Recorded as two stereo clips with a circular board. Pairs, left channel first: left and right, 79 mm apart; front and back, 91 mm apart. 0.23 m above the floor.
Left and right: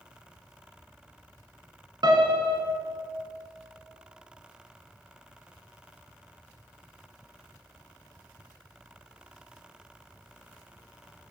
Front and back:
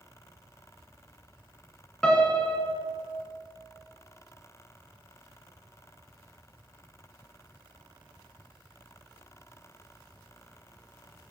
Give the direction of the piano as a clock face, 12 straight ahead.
3 o'clock.